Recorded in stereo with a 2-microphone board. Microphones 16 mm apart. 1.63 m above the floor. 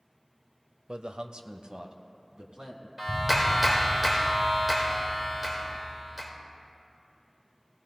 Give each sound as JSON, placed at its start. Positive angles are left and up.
{"t": 0.9, "sound": "a man speaking", "side_deg": -70, "distance_m": 0.5}
{"t": 3.0, "sound": "a clap", "side_deg": -10, "distance_m": 1.8}